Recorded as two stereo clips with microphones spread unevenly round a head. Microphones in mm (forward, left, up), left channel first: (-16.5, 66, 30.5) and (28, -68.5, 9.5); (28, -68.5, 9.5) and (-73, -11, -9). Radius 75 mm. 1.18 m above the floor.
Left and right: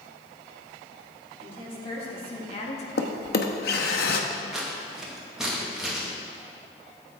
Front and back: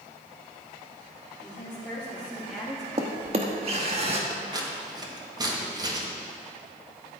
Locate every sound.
1.4 s a woman speaking: 50° left, 3 m; by 2.9 s 65° left, 1.4 m
3.0 s a drawer: 95° left, 1.0 m
4.3 s scissors: 155° right, 2 m